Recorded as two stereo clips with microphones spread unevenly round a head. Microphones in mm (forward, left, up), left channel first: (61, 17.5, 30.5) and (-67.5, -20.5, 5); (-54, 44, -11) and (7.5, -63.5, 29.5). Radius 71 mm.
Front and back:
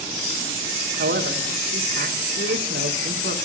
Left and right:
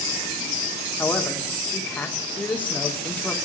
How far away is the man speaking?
About 1.8 m.